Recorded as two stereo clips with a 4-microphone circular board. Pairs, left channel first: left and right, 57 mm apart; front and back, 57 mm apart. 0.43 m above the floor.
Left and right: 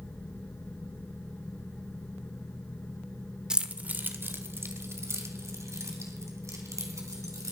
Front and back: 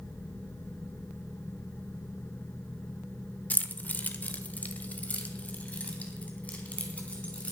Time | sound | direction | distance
3.5 | keys jangling | 25° right | 0.8 m